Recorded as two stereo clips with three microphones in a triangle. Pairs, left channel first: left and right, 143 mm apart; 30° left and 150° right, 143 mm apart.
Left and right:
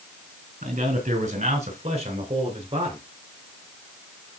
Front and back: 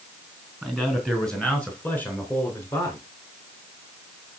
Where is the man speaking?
60° right, 4 m; by 3.0 s 40° right, 5 m.